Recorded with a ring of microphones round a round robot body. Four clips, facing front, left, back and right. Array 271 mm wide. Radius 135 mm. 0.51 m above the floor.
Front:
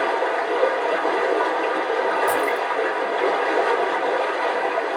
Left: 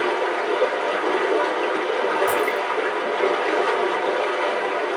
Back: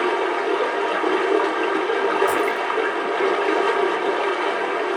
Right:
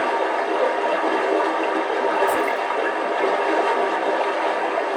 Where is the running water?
175° left, 1.9 m.